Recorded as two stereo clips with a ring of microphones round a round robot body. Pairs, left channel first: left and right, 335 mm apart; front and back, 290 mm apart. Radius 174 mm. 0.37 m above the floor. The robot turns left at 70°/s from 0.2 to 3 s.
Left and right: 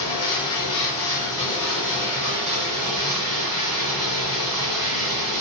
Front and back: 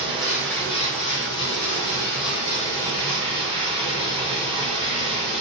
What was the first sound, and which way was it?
Running water, 105° left.